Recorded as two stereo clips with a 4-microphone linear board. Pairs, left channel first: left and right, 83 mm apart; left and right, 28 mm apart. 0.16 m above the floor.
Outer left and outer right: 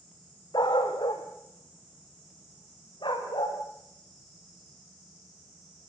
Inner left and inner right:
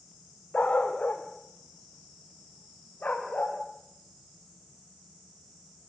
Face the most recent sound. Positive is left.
turn(degrees=80)